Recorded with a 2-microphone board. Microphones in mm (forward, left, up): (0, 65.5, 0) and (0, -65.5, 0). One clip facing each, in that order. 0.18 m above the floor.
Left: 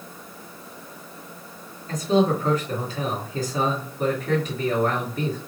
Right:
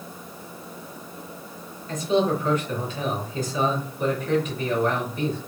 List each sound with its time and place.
1.9 s a man speaking: 40° left (ahead or behind), 2.5 m